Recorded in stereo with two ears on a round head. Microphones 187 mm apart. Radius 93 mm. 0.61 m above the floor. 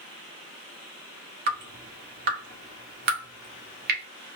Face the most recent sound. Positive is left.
turn(degrees=-45)  # may be behind; listen again after turning